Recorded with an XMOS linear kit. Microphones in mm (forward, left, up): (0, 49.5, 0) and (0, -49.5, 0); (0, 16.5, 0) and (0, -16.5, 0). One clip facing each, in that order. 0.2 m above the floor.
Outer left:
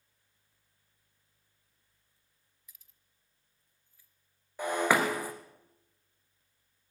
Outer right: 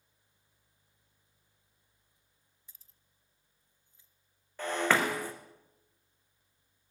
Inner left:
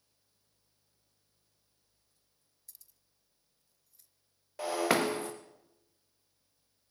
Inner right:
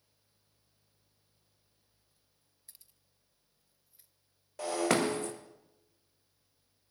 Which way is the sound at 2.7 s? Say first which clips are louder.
Outer left 2 dB, inner right 1 dB; 30° right (ahead or behind).